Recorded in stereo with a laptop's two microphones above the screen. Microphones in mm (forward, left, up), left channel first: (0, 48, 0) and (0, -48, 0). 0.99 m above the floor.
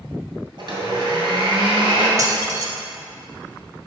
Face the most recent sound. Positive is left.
turn(degrees=-35)  # may be behind; listen again after turning